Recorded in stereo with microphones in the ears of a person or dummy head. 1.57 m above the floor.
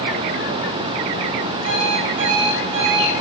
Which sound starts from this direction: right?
An alarm clock, at 1.6 s.